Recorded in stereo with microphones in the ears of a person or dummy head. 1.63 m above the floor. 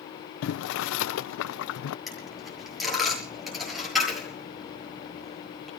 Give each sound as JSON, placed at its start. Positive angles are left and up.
{"t": 0.4, "sound": "boiling", "side_deg": 85, "distance_m": 0.7}
{"t": 2.1, "sound": "a dropped coin", "side_deg": 0, "distance_m": 6.5}